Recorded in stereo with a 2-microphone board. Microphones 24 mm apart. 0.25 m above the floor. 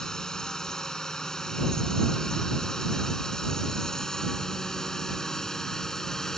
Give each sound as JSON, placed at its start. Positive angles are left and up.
{"t": 0.0, "sound": "a drone", "side_deg": 25}